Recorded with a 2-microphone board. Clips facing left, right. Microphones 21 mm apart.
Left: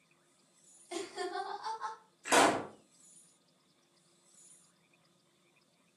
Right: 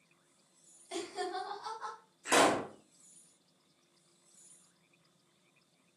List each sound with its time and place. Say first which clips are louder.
0.9 s laughter: even; 15° right (ahead or behind), 1.3 m; by 2.0 s 15° left (ahead or behind), 1.6 m
2.2 s a pop: even; 10° left (ahead or behind), 0.9 m